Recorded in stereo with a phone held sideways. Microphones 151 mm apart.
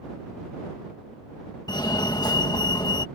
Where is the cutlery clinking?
No cutlery clinking in this recording.